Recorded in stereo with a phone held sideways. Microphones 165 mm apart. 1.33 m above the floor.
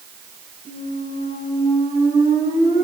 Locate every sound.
0.7 s a squeak: 75° left (ahead or behind), 5 m